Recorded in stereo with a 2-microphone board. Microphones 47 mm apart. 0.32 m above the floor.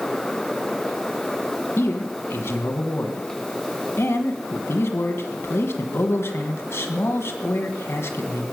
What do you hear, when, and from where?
1.8 s a man speaking: 65° left (ahead or behind), 2 m